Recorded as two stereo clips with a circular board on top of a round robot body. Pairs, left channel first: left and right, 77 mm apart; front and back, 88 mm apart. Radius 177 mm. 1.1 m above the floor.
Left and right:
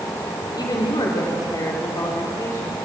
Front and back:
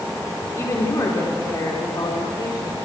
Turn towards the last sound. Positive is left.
turn(degrees=40)